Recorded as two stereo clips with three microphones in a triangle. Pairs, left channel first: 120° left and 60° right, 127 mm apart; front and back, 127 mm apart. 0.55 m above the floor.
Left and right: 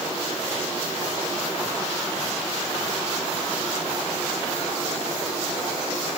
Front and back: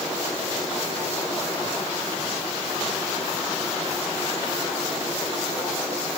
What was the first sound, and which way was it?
Only background noise.